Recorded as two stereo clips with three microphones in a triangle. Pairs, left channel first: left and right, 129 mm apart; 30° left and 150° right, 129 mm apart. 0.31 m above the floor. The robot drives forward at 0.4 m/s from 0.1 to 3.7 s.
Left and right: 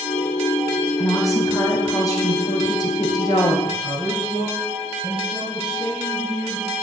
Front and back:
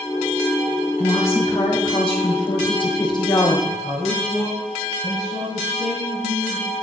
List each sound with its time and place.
1.0 s a woman speaking: 30° left, 2.5 m; by 3.6 s 60° left, 1.7 m
3.7 s a man speaking: 145° right, 2.5 m